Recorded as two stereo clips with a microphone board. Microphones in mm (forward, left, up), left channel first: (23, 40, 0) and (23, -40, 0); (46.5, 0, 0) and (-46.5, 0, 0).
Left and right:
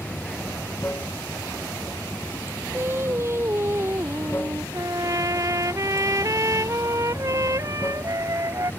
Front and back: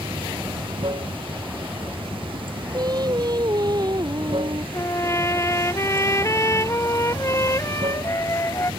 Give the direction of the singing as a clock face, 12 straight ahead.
5 o'clock.